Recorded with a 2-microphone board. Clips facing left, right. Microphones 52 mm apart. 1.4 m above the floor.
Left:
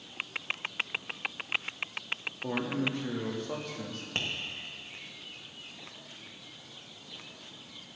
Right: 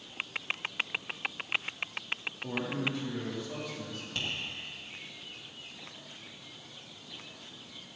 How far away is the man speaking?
About 3.5 m.